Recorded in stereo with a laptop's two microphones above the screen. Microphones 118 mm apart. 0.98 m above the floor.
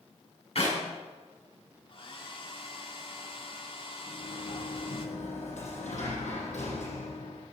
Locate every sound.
0.6 s a clap: 60° left (ahead or behind), 6.5 m
1.9 s a hair dryer: 50° left (ahead or behind), 1.9 m
4.1 s a sliding door: 80° left, 5.5 m